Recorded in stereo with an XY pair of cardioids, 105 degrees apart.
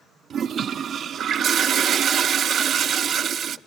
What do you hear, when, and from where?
0.3 s a toilet flushing: 55° right, 0.5 m